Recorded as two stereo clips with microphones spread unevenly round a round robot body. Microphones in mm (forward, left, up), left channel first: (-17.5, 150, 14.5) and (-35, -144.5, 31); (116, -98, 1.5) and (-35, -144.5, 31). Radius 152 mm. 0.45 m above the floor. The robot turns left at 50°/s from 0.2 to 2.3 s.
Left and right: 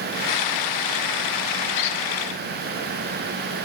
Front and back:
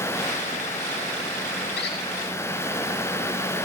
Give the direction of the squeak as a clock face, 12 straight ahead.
10 o'clock.